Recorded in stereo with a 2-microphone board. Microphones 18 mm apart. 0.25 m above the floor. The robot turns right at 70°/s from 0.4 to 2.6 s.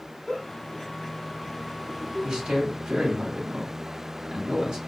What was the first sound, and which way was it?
A giggle, 40° left (ahead or behind).